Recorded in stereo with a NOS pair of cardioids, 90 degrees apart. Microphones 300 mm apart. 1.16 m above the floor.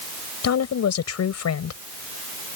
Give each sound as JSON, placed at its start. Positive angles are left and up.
{"t": 0.4, "sound": "a woman speaking", "azimuth_deg": 60}